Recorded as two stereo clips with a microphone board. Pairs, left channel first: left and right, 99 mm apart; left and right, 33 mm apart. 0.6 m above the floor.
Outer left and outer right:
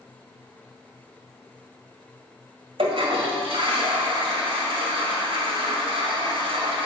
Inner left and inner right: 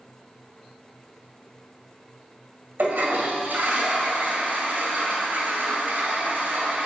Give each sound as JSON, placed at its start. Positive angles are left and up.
{"t": 2.8, "sound": "a toilet flushing", "side_deg": -80, "distance_m": 1.9}